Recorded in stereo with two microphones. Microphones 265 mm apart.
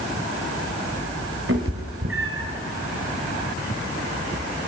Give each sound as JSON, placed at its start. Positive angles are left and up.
{"t": 1.5, "sound": "a cat meowing", "side_deg": -55, "distance_m": 1.8}